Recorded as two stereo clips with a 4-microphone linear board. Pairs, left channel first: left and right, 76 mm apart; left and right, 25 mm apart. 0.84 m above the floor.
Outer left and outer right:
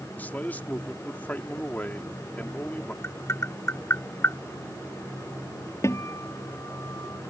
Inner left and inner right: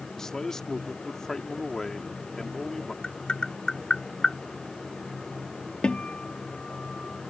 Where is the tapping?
40° left (ahead or behind).